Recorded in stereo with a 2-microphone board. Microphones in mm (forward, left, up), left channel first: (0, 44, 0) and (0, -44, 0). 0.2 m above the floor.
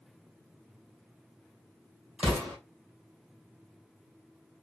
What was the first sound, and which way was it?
An explosion, 15° right (ahead or behind).